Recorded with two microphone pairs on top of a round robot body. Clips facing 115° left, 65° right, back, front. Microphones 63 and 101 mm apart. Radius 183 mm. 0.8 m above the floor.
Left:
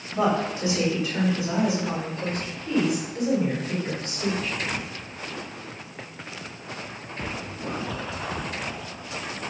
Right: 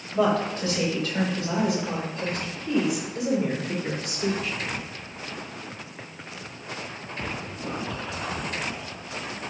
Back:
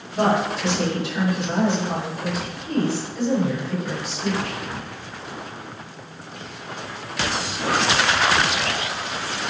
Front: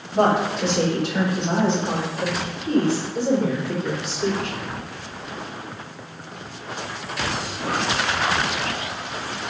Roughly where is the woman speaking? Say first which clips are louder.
Right 1 dB, front 2 dB; ahead left.